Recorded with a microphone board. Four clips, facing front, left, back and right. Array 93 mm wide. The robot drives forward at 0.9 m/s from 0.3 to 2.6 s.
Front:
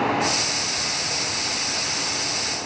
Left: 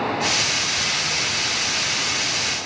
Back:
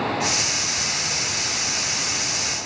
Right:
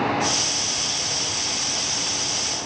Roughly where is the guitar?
I don't hear a guitar.